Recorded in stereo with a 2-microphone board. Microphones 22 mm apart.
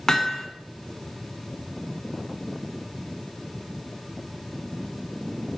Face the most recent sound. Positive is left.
turn(degrees=25)  # may be behind; listen again after turning